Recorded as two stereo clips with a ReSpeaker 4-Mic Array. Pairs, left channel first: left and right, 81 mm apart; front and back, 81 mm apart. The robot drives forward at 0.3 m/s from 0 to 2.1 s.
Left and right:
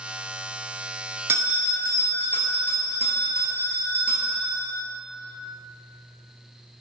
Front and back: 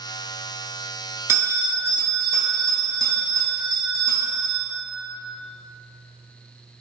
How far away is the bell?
About 0.6 m.